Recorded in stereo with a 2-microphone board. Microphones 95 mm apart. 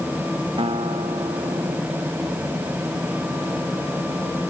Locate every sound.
0.6 s a guitar: 80° right